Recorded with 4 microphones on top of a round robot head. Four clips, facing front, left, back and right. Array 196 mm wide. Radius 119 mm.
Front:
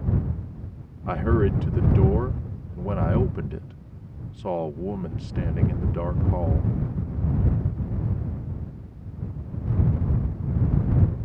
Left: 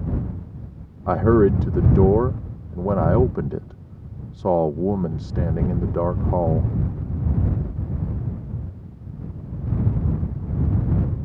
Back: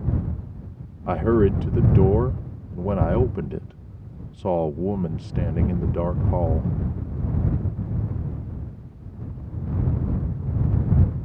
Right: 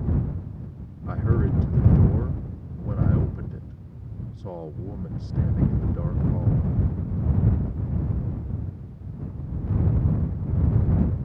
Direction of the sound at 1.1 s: 110° left.